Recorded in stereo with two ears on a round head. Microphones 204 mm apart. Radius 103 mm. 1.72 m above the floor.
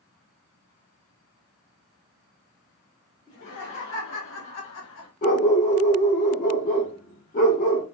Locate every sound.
3.3 s laughter: 60° left (ahead or behind), 2.5 m; by 5.1 s 70° left (ahead or behind), 1.6 m
5.2 s a dog barking: 40° left (ahead or behind), 1.6 m